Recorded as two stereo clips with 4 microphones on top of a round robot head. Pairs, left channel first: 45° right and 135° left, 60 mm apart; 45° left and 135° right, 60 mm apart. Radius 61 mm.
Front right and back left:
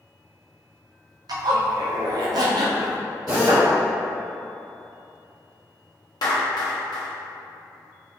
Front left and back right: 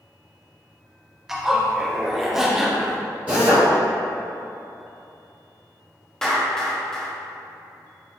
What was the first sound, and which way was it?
A zipper, 145° left.